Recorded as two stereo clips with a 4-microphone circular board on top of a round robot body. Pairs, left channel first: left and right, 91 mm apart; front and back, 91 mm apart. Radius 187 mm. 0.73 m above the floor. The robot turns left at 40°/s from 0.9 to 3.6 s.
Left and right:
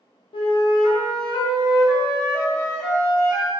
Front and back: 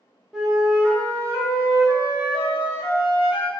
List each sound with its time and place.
0.3 s a flute: 90° left, 0.6 m; by 3.5 s 15° right, 0.6 m